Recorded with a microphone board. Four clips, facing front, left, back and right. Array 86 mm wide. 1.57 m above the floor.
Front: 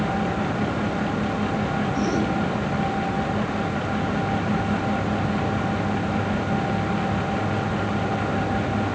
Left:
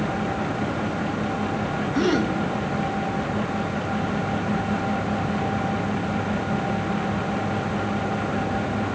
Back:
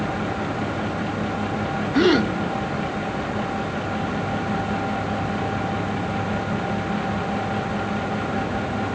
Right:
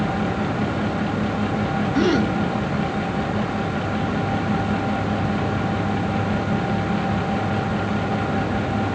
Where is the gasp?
175° right, 1.1 m.